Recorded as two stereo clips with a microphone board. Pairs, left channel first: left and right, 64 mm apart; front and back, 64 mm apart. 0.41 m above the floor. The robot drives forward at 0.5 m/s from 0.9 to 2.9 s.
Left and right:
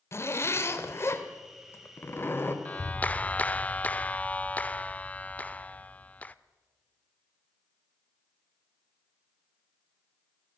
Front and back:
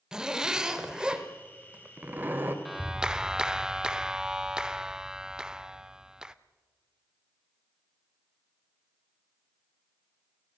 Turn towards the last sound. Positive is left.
turn(degrees=115)